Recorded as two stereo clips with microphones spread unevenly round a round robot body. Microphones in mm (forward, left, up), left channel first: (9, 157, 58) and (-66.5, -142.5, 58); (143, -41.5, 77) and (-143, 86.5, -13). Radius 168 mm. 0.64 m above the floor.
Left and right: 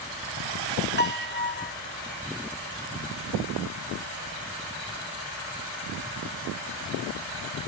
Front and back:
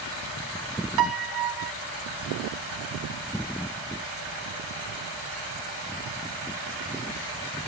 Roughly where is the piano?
Behind left.